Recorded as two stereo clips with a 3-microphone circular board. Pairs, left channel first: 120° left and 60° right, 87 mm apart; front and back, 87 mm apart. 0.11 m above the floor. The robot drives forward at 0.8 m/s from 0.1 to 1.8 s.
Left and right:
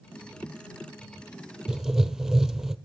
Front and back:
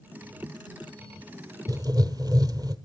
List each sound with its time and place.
1.7 s writing: 140° right, 0.9 m; by 2.8 s 145° right, 1.0 m